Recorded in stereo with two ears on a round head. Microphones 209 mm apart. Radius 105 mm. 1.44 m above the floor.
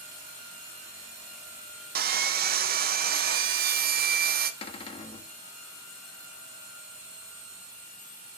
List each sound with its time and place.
1.9 s sawing: 40° right (ahead or behind), 0.6 m
4.6 s a cupboard door: 20° left (ahead or behind), 1.1 m